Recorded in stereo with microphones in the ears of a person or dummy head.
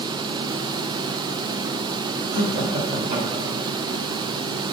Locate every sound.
2.3 s laughter: 55° right (ahead or behind), 4 m; by 3.6 s 35° right (ahead or behind), 4 m